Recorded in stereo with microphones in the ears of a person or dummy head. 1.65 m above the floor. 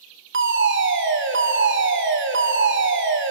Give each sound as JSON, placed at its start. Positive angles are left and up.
{"t": 0.3, "sound": "a fire alarm", "side_deg": -55, "distance_m": 1.4}